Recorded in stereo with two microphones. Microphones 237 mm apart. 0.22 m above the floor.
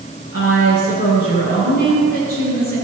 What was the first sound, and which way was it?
A woman speaking, 45° left (ahead or behind).